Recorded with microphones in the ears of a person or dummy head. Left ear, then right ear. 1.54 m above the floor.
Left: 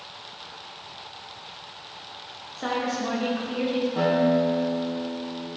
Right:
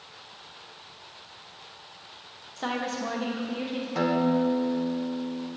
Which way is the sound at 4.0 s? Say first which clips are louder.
Left 2 dB; 65° right (ahead or behind).